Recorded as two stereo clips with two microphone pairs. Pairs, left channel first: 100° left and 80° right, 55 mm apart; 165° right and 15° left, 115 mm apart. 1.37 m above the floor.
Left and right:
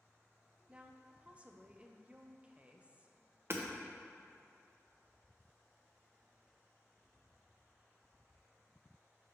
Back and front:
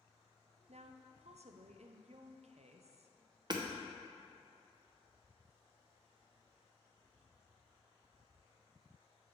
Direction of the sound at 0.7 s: 10° right.